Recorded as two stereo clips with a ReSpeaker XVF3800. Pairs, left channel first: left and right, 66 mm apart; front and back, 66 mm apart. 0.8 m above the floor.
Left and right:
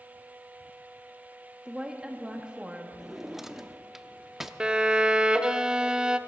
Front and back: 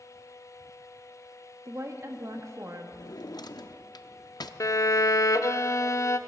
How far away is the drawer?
About 0.6 m.